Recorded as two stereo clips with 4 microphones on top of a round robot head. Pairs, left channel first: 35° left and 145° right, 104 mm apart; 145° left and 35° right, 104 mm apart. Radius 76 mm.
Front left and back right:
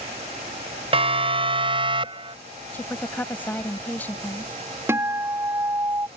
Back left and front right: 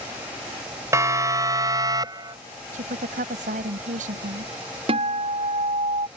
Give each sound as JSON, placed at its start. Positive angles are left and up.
{"t": 0.9, "sound": "a siren", "azimuth_deg": -100}
{"t": 2.7, "sound": "a woman speaking", "azimuth_deg": -40}
{"t": 4.9, "sound": "a guitar", "azimuth_deg": -75}